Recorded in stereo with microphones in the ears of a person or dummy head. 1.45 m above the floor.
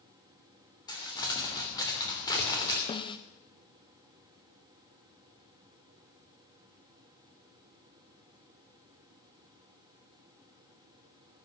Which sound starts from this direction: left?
A snare drum, at 2.9 s.